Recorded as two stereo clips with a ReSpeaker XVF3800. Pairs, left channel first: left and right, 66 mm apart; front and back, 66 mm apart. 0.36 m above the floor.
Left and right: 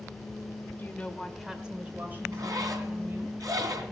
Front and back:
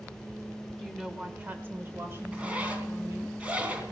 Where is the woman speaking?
90° left, 1.2 m; by 3.3 s 135° right, 3 m.